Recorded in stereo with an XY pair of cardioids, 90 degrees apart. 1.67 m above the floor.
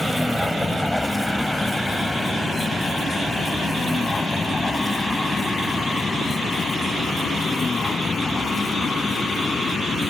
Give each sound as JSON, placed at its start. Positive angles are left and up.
{"t": 0.0, "sound": "a vehicle", "azimuth_deg": 5}